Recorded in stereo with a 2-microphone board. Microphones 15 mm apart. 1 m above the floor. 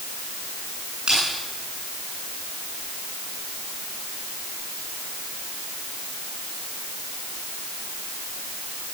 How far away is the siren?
I don't hear a siren.